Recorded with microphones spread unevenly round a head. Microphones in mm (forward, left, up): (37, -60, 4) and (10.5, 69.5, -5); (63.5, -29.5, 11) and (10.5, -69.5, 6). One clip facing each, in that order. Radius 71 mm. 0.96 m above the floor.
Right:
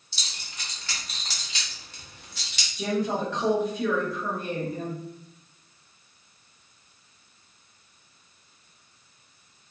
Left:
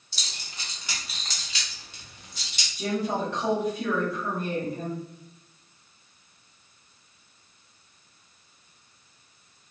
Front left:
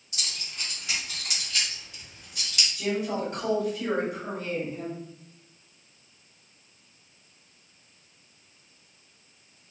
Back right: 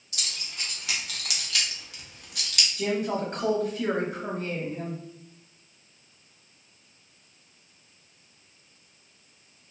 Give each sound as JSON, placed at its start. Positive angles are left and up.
{"t": 0.1, "sound": "keys jangling", "azimuth_deg": 150, "distance_m": 0.9}
{"t": 2.8, "sound": "a woman speaking", "azimuth_deg": -100, "distance_m": 1.2}